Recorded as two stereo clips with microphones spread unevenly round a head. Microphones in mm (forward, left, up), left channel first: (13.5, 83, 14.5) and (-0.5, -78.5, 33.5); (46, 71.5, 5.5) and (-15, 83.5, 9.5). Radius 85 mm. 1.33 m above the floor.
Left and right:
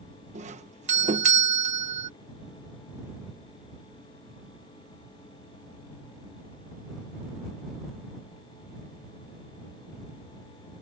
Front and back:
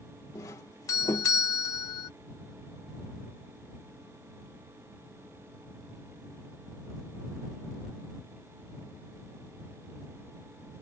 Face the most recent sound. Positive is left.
turn(degrees=-50)